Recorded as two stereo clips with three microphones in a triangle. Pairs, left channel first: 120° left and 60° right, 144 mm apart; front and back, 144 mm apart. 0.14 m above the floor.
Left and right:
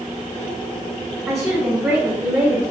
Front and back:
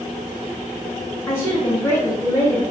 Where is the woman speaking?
40° right, 1.2 m.